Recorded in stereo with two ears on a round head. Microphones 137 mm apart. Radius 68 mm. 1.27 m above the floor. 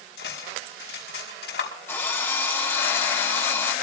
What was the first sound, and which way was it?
Cutlery clinking, 75° left (ahead or behind).